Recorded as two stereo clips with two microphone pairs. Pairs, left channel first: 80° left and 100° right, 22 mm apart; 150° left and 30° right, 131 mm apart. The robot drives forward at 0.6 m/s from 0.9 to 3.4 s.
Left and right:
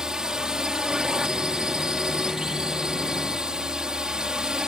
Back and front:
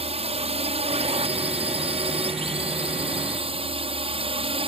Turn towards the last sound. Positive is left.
turn(degrees=-60)